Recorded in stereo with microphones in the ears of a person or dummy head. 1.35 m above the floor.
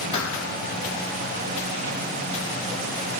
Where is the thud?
25° left (ahead or behind), 5.5 m.